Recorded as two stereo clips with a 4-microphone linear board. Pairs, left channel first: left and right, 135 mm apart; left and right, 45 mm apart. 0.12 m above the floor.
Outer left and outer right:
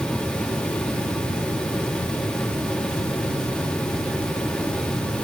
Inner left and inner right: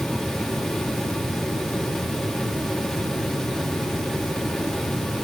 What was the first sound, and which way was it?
Only background noise.